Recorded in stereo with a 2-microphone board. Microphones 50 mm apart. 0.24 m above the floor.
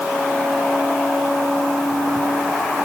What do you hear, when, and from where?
Only background noise.